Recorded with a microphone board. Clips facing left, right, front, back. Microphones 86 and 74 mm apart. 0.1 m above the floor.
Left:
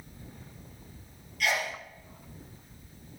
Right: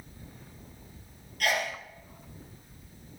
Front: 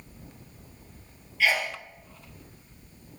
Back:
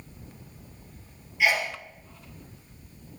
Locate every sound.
1.4 s a sneeze: 110° right, 3 m